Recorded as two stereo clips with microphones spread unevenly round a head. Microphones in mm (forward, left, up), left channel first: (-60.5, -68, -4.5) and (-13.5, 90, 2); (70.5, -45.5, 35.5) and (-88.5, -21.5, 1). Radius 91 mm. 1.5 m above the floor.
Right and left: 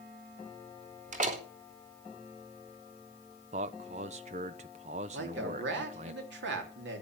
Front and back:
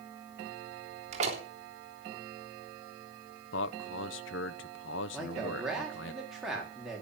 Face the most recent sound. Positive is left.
turn(degrees=85)